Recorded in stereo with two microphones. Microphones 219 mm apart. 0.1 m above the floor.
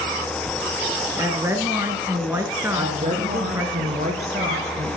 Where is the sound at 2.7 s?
35° right (ahead or behind), 1.8 m.